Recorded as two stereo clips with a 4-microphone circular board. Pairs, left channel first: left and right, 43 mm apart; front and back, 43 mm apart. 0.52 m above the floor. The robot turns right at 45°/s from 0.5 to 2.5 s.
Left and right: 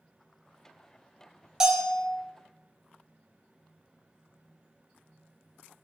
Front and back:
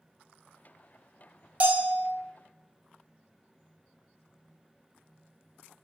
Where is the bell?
160° right, 0.5 m; by 2.0 s 135° right, 0.5 m.